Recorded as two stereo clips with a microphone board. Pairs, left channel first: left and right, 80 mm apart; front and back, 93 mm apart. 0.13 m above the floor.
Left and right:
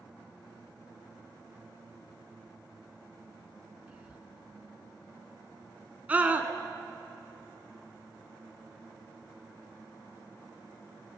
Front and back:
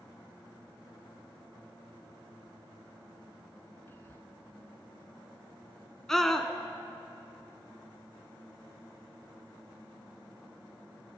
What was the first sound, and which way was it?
Whispering, 30° right.